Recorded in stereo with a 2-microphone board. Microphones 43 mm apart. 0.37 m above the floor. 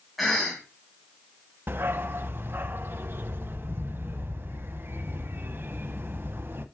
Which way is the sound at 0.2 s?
Centre (ahead or behind).